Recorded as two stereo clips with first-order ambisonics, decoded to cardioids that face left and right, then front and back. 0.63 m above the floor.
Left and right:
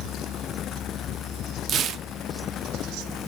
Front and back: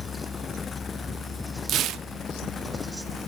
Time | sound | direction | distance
1.7 | tearing paper | 140° right | 0.6 m